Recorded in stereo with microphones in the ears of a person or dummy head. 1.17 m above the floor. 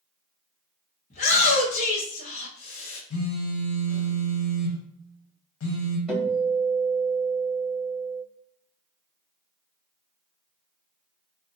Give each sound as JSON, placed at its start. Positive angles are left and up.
{"t": 1.1, "sound": "a shout", "side_deg": 35, "distance_m": 0.8}
{"t": 3.1, "sound": "a phone buzzing", "side_deg": 70, "distance_m": 0.8}
{"t": 6.1, "sound": "a guitar", "side_deg": 0, "distance_m": 1.7}